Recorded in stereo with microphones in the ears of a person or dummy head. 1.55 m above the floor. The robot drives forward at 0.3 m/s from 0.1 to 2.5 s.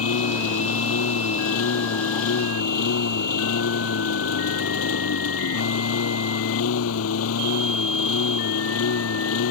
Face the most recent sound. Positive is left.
turn(degrees=85)